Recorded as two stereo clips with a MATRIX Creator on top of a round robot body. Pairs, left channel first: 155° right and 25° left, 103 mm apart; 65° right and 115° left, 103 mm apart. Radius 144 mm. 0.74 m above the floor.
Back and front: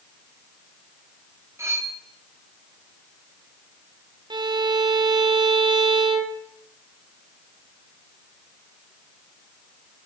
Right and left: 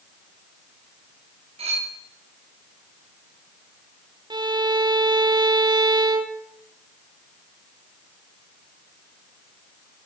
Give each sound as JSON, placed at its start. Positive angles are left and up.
{"t": 1.6, "sound": "cutlery clinking", "azimuth_deg": 85, "distance_m": 2.5}
{"t": 4.3, "sound": "a violin", "azimuth_deg": 65, "distance_m": 1.4}